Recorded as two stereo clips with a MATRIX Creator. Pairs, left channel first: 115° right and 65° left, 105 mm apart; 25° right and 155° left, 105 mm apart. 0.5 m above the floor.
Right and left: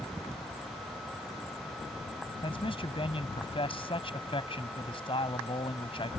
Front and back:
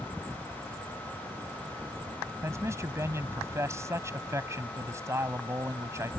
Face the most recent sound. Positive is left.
turn(degrees=-140)